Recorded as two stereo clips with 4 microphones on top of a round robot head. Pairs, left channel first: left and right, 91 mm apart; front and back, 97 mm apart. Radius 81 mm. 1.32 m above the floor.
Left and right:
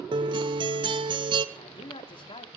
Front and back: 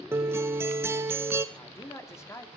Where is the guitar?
115° right, 0.9 m.